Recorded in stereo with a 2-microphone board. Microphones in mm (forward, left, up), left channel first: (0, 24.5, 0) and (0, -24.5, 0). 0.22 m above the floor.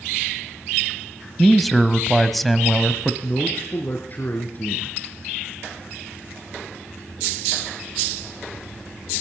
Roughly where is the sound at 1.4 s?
Centre.